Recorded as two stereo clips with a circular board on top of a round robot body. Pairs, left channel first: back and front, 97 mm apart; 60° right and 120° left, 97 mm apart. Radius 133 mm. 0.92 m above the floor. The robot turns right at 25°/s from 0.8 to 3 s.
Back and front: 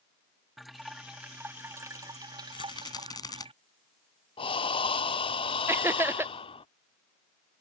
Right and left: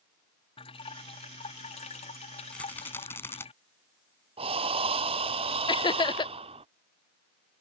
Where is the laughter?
60° right.